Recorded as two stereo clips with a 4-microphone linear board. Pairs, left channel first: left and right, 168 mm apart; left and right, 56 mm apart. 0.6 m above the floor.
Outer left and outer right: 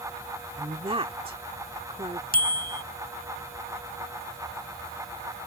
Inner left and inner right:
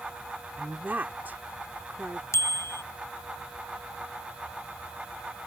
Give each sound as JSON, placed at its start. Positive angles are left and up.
{"t": 0.6, "sound": "a woman speaking", "side_deg": -35}
{"t": 2.3, "sound": "a bicycle bell", "side_deg": 60}